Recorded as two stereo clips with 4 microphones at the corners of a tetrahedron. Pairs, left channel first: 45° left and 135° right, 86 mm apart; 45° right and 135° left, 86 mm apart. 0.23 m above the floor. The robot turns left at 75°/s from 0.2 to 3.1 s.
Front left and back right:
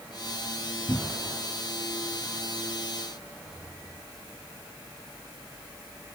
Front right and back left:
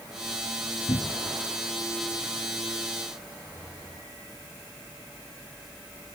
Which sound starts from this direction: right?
A cupboard door, at 0.9 s.